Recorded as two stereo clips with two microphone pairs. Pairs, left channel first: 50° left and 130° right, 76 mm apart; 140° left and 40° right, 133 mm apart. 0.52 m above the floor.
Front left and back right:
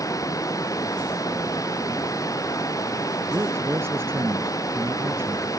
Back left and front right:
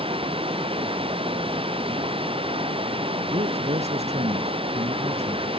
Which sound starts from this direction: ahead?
Running water, at 0.0 s.